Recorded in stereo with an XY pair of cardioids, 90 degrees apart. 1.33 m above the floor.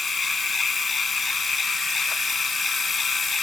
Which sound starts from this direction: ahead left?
A machine running, at 0.0 s.